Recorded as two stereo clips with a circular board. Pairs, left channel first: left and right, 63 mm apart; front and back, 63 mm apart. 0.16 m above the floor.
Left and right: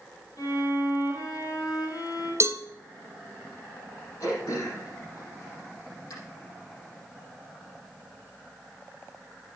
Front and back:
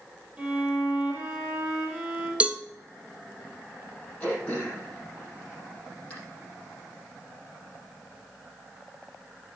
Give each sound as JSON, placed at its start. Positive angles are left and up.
{"t": 0.4, "sound": "a violin", "azimuth_deg": 105, "distance_m": 5.0}
{"t": 2.4, "sound": "a cowbell", "azimuth_deg": -115, "distance_m": 0.7}
{"t": 4.2, "sound": "throat clearing", "azimuth_deg": 65, "distance_m": 6.0}